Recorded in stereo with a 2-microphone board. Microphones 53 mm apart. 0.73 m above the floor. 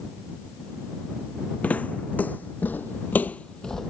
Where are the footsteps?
30° left (ahead or behind); by 3.9 s 5° left (ahead or behind).